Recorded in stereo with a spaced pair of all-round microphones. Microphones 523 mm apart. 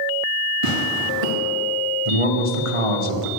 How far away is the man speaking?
About 1.5 m.